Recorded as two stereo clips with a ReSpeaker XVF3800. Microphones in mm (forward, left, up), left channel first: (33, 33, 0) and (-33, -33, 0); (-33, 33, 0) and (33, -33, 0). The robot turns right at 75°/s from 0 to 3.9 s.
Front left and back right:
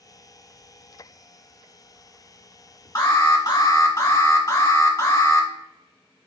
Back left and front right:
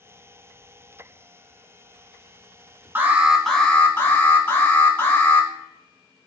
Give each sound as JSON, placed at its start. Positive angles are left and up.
{"t": 3.0, "sound": "an alarm", "azimuth_deg": 10, "distance_m": 1.0}